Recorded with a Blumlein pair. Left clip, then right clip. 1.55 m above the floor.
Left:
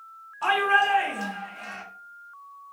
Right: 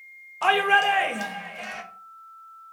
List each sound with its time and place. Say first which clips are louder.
0.4 s a shout: right 2 dB; 65° right, 0.6 m